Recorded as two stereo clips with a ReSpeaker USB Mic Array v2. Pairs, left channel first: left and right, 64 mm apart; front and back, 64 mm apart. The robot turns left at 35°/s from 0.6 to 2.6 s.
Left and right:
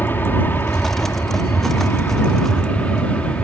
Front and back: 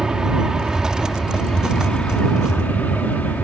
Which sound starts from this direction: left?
An aircraft, at 0.0 s.